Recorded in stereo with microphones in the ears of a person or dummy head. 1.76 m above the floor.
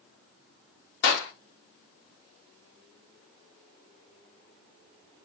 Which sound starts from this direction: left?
A clap, at 1.0 s.